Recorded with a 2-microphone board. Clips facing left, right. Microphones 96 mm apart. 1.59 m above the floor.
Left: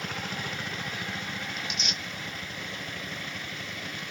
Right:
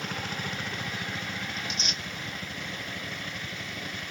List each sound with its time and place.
1.6 s tearing paper: 35° right (ahead or behind), 0.8 m